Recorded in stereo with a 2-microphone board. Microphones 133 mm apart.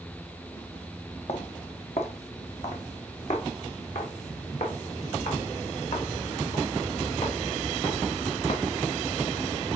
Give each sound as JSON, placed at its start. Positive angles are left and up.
{"t": 1.3, "sound": "footsteps", "side_deg": 50, "distance_m": 1.9}